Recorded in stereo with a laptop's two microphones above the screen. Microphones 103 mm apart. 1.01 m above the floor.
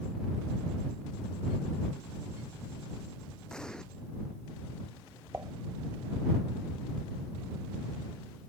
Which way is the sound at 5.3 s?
25° right (ahead or behind).